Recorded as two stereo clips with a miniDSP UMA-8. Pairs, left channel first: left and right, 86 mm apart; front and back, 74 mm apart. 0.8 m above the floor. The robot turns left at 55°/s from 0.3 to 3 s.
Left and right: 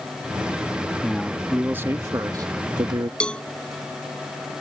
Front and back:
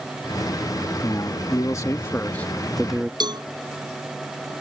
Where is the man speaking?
10° left; by 3.1 s 100° right.